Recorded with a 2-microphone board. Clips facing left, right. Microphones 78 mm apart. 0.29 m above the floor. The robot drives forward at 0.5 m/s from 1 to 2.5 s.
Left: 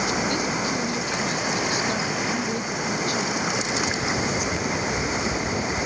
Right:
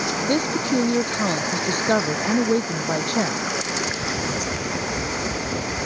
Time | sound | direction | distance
0.3 | a woman speaking | 50° right (ahead or behind) | ?